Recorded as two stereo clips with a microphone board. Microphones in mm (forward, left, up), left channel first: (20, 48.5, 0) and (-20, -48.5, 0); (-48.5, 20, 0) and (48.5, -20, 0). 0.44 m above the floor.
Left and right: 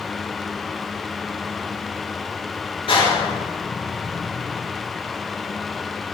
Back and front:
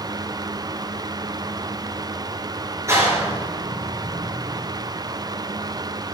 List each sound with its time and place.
2.9 s a clap: 40° left, 6 m